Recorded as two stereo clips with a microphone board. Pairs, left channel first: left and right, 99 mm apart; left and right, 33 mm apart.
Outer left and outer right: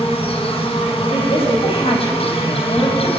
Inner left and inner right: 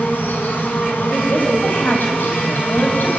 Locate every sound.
0.0 s an insect: 85° left, 4 m
1.1 s a woman speaking: 75° left (ahead or behind), 6 m